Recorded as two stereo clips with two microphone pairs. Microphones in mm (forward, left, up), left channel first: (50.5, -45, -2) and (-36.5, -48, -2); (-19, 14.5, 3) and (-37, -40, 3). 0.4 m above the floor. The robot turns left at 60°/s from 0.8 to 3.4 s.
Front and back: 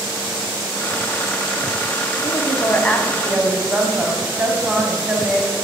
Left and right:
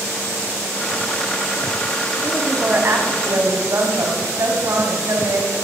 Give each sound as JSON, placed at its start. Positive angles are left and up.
{"t": 2.2, "sound": "a woman speaking", "azimuth_deg": -35, "distance_m": 3.0}